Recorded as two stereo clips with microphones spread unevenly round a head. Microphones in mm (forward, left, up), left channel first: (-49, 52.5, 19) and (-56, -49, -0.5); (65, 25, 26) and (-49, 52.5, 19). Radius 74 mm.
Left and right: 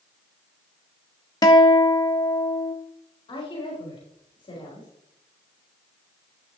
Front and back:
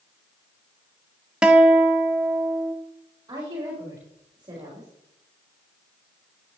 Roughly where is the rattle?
I don't hear a rattle.